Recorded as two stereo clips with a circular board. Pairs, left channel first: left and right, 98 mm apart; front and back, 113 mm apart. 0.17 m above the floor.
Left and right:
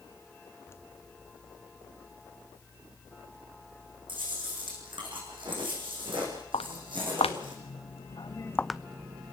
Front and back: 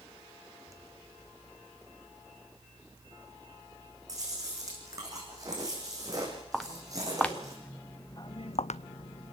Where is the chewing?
120° right, 7 m.